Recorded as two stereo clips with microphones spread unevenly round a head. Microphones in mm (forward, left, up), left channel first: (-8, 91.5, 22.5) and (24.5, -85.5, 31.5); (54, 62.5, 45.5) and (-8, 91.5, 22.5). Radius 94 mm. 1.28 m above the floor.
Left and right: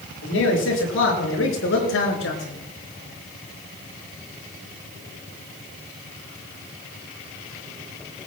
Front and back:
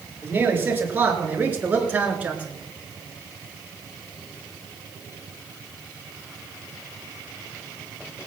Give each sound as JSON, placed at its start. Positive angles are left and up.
{"t": 0.2, "sound": "a man speaking", "azimuth_deg": 95, "distance_m": 6.0}